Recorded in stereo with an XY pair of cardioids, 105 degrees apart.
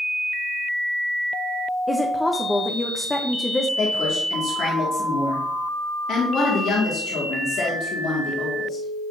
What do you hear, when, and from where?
1.9 s a woman speaking: 15° left, 0.9 m
3.8 s a woman speaking: 70° left, 2 m